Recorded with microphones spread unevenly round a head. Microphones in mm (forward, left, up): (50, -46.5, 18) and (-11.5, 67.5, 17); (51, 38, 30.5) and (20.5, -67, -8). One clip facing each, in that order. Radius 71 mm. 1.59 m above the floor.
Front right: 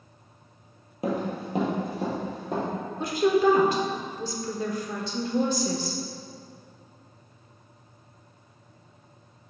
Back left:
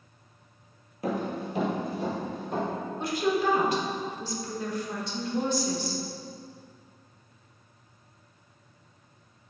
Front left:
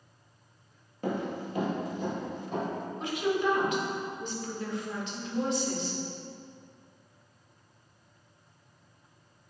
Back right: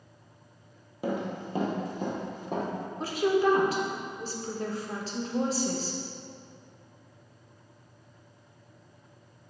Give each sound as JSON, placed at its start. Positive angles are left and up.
{"t": 1.0, "sound": "running footsteps", "azimuth_deg": -5, "distance_m": 1.9}
{"t": 3.0, "sound": "a woman speaking", "azimuth_deg": -55, "distance_m": 1.2}